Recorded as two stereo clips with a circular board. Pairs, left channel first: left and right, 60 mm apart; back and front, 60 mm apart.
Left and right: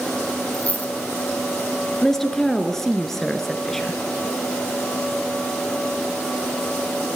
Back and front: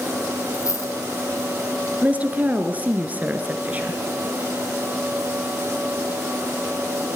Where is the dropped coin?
155° left, 3 m.